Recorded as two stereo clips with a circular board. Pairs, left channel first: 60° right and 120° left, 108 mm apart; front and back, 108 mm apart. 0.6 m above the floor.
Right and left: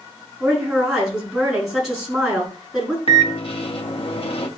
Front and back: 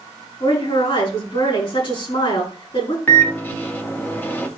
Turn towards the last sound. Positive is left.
turn(degrees=-70)